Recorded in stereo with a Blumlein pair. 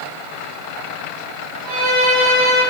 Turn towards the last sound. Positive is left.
turn(degrees=-15)